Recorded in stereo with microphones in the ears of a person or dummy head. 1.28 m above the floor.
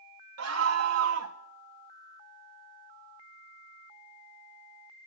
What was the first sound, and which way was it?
A scream, 80° right.